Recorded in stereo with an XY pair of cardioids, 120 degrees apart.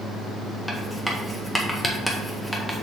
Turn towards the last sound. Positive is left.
turn(degrees=5)